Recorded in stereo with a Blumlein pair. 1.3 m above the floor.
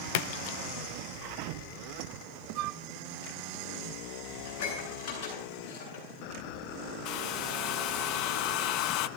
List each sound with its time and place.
0.1 s a splash: 50° left, 1.0 m
2.5 s a flute: 40° right, 0.5 m
4.5 s dishes clattering: 45° left, 9 m
7.0 s a hair dryer: 40° left, 0.8 m